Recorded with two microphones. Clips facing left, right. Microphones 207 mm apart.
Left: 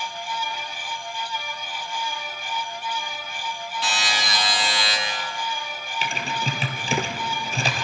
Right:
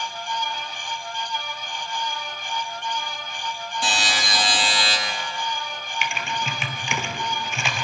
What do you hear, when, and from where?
3.8 s a buzzer: 50° right (ahead or behind), 9.5 m
6.0 s typing on a keyboard: 40° left (ahead or behind), 2 m